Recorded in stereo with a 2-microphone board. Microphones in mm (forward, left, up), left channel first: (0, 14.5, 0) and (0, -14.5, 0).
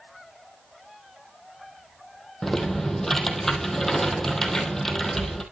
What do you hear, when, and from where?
2.4 s typing on a keyboard: 10° left (ahead or behind), 2.5 m